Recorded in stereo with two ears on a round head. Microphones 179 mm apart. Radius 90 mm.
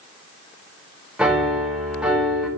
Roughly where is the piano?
Centre.